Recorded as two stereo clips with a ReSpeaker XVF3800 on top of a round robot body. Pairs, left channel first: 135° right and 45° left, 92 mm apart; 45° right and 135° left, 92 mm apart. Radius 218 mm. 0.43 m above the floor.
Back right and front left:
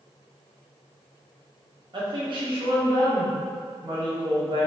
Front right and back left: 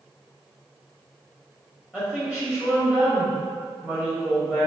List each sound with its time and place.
1.9 s a woman speaking: 55° left, 1.6 m